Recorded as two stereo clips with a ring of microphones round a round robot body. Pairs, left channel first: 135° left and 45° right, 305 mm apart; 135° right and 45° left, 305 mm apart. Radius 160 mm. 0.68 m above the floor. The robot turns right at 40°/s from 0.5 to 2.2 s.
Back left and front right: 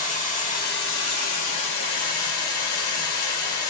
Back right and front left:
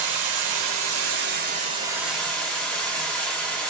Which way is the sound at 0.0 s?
70° left.